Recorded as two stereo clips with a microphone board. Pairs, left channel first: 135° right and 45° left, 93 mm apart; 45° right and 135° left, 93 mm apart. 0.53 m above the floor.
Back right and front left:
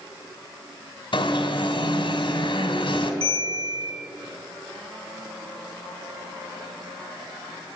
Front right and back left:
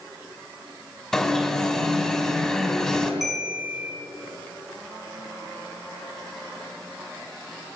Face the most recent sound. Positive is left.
turn(degrees=50)